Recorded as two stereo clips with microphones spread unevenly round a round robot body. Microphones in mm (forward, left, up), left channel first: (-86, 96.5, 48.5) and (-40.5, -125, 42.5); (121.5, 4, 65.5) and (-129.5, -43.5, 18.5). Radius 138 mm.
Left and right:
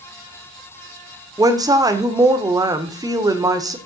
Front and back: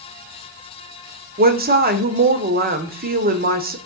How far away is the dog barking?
I don't hear a dog barking.